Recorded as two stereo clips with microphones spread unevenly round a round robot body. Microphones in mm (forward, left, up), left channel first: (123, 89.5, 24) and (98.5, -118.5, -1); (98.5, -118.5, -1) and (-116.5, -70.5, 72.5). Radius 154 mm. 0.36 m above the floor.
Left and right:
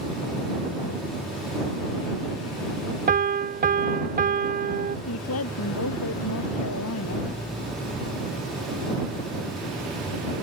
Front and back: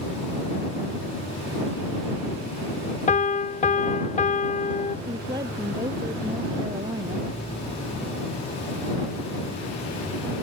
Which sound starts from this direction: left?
A woman speaking, at 5.1 s.